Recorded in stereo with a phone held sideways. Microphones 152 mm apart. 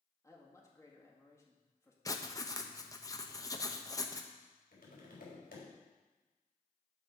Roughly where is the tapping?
Left.